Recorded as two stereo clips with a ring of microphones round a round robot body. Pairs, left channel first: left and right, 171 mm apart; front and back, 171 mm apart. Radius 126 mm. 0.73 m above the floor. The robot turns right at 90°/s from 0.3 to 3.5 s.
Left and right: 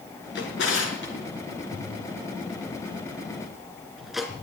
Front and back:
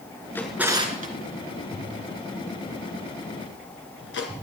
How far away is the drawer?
About 3 m.